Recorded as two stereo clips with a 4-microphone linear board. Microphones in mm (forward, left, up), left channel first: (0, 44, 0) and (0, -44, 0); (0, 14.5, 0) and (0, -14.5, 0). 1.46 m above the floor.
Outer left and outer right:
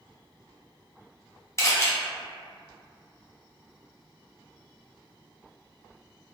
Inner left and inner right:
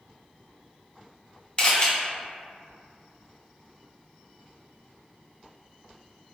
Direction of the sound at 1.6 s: 35° left (ahead or behind).